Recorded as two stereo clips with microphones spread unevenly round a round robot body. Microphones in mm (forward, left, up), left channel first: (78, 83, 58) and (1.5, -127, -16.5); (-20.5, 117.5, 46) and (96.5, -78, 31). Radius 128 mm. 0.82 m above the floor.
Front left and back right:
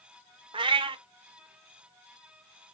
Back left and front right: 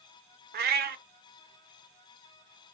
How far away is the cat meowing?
About 0.5 m.